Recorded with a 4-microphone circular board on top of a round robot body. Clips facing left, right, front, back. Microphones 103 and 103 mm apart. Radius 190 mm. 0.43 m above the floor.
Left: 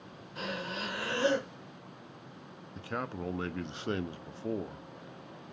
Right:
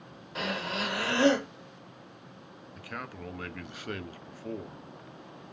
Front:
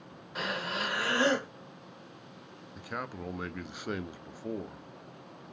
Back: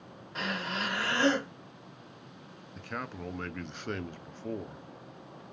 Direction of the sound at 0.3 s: 80° right.